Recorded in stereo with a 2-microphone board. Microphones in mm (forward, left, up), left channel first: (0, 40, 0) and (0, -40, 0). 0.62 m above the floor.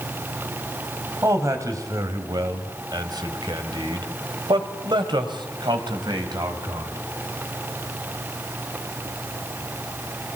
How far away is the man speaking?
About 3 m.